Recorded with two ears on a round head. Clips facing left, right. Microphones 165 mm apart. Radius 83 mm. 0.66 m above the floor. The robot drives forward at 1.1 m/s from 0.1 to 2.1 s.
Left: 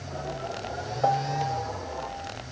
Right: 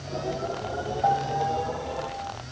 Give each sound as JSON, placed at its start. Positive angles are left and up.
{"t": 1.0, "sound": "a piano", "side_deg": 75}